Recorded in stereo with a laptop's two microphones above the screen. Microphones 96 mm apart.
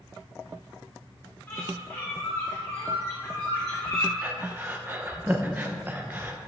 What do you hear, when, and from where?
1.5 s a bird: 20° left (ahead or behind), 3.5 m
4.2 s breathing: 20° right (ahead or behind), 0.9 m